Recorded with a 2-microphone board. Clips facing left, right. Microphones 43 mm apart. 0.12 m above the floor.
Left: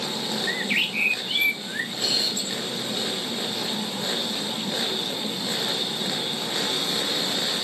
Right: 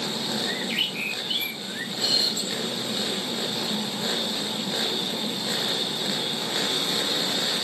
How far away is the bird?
About 1.8 m.